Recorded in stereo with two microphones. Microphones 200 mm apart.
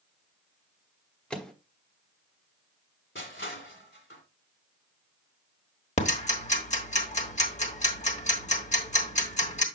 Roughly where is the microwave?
Centre.